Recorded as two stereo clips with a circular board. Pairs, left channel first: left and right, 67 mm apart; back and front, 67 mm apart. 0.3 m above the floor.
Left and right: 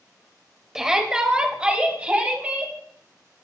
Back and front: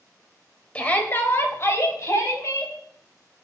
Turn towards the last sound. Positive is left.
turn(degrees=-155)